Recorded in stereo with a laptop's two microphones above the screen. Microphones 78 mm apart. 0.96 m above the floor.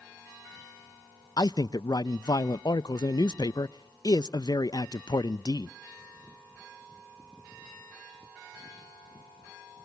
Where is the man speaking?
60° left (ahead or behind), 0.5 m.